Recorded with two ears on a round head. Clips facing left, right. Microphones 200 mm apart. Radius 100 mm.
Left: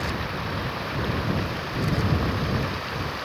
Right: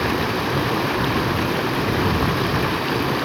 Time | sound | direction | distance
0.0 | running water | 70° right (ahead or behind) | ?